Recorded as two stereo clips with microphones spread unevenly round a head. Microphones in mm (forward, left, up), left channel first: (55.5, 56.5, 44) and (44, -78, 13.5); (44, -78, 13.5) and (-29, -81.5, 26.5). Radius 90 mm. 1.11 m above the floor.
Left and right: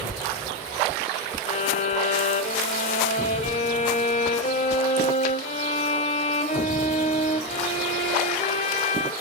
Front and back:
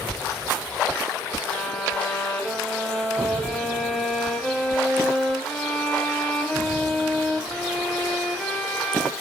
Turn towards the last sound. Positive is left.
turn(degrees=95)